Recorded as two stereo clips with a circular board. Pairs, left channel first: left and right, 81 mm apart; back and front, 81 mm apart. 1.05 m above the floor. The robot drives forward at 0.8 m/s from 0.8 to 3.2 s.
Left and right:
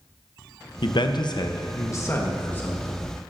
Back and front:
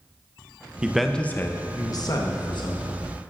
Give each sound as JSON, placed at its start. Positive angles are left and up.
{"t": 0.8, "sound": "a man speaking", "azimuth_deg": 75, "distance_m": 0.7}